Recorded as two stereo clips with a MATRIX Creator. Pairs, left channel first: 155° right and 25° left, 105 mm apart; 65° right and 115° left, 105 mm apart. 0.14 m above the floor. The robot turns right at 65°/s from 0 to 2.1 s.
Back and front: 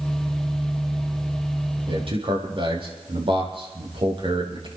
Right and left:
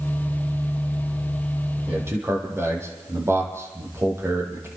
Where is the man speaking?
35° left, 4.5 m; by 4.7 s 50° left, 4.5 m.